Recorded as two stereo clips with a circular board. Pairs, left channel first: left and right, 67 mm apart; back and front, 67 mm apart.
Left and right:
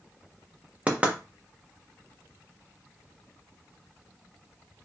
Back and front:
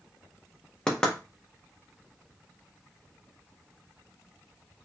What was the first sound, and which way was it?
Knocking, 115° right.